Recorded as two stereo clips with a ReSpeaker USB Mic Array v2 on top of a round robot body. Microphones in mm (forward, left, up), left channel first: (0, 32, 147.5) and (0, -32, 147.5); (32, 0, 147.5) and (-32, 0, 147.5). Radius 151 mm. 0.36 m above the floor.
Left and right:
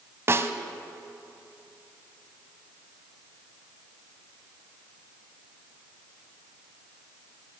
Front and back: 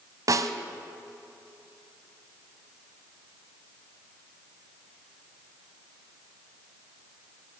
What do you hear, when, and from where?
0.3 s a snare drum: 145° right, 1.0 m